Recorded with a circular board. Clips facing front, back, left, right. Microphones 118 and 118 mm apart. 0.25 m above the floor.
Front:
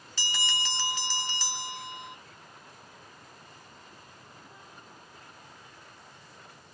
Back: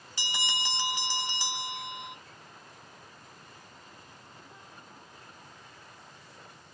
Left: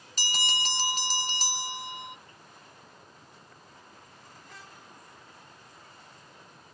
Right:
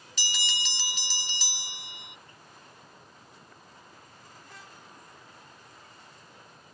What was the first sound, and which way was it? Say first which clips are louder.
A bell: even, left 4 dB; 115° left.